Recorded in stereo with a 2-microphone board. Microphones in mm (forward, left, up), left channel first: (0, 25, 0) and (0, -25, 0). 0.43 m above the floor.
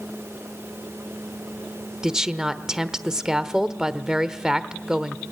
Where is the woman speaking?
15° right (ahead or behind), 0.9 m.